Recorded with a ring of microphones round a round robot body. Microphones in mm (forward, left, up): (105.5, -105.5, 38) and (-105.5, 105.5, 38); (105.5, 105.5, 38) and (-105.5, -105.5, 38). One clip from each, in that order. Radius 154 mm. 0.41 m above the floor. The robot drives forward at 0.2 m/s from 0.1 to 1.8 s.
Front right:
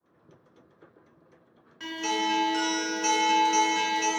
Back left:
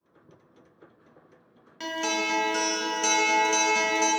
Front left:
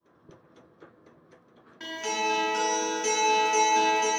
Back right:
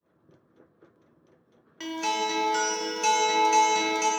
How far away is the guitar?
About 0.6 m.